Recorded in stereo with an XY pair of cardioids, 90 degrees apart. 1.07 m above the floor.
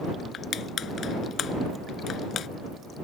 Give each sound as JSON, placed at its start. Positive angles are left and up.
{"t": 0.3, "sound": "crushing", "azimuth_deg": 65}